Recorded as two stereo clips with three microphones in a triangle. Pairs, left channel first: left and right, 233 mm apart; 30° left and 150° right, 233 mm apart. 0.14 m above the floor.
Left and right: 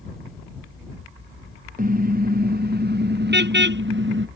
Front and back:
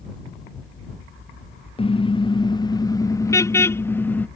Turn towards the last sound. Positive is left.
turn(degrees=-55)